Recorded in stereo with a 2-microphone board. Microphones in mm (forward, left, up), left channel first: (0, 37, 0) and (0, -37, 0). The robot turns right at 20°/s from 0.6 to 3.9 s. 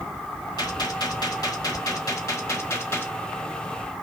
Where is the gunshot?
95° left, 1.2 m; by 3.1 s 145° left, 1.2 m.